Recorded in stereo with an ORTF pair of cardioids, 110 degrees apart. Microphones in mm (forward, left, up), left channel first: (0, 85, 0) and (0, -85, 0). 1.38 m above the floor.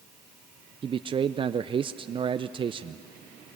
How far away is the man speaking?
About 0.5 m.